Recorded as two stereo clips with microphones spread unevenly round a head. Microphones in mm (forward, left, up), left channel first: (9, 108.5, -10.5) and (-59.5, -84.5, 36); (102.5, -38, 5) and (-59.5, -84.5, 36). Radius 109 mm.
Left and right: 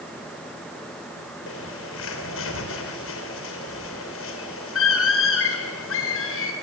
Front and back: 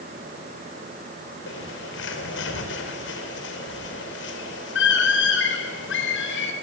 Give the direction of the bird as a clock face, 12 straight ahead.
11 o'clock.